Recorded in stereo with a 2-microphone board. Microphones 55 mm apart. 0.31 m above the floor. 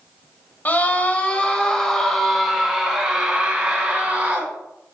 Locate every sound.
0.7 s a scream: 35° left (ahead or behind), 1.8 m; by 4.5 s 30° right (ahead or behind), 3 m